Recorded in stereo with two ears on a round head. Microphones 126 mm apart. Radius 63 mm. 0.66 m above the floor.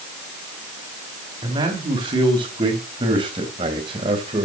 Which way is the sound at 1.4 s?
35° right (ahead or behind).